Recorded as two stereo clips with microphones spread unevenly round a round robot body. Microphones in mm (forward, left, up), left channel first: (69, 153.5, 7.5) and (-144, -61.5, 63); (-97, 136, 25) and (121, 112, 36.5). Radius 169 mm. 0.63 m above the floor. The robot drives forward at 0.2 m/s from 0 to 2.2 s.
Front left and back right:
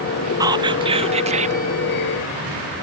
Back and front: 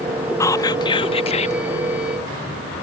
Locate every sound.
0.4 s whispering: 140° left; by 1.6 s 160° left